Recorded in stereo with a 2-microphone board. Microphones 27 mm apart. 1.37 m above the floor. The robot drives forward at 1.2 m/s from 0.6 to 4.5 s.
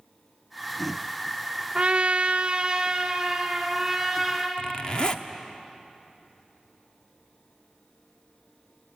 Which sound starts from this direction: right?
A trumpet, at 1.8 s.